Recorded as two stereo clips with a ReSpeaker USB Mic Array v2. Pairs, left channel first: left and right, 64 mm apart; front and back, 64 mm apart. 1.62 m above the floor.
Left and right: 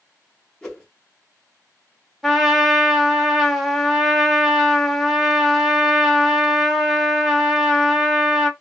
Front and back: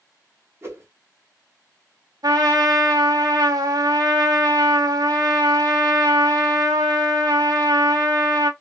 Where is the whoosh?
165° left, 1.1 m.